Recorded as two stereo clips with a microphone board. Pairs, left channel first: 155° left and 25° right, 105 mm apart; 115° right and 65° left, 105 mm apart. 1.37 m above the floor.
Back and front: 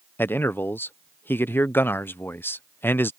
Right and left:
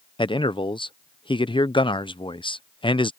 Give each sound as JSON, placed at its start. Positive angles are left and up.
{"t": 0.2, "sound": "a man speaking", "azimuth_deg": -135}